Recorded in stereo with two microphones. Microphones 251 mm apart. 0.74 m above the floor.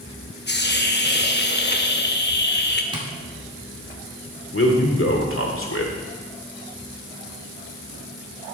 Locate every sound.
0.5 s a hiss: 45° left (ahead or behind), 0.9 m
2.9 s tapping: 20° right (ahead or behind), 1.9 m
4.5 s a man speaking: 60° left (ahead or behind), 1.9 m